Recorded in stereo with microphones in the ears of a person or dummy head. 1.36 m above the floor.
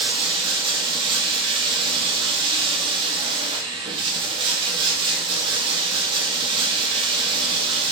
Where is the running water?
30° right (ahead or behind), 1.3 m.